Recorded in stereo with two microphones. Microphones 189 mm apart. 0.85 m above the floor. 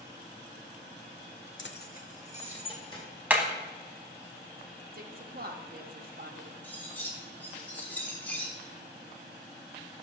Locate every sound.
1.6 s keys jangling: 80° left, 0.6 m; by 3.0 s 25° left (ahead or behind), 2.5 m
3.3 s hammering: 10° right (ahead or behind), 1.2 m
4.9 s a woman speaking: 50° right (ahead or behind), 1.0 m
6.6 s cutlery clinking: 10° left (ahead or behind), 1.6 m